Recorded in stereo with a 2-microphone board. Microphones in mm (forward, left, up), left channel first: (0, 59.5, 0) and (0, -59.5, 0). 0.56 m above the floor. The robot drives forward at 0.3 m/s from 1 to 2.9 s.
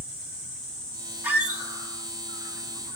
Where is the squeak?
15° right (ahead or behind), 0.6 m; by 1.6 s 10° right (ahead or behind), 0.7 m.